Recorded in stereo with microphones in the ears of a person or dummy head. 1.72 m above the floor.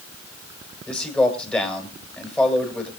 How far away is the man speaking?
About 6 m.